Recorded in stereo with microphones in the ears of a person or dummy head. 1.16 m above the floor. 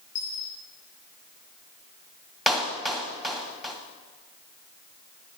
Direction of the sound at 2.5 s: Centre (ahead or behind).